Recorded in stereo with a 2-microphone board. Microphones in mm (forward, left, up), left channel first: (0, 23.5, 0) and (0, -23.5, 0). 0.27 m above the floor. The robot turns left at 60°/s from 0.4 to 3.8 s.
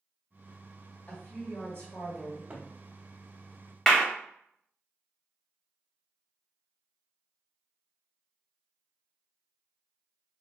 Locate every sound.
1.1 s a woman speaking: 130° left, 1.8 m; by 2.4 s 50° left, 1.8 m
2.5 s a cupboard door: 30° right (ahead or behind), 0.7 m; by 2.7 s 25° right (ahead or behind), 0.7 m
3.9 s a clap: 5° left (ahead or behind), 0.8 m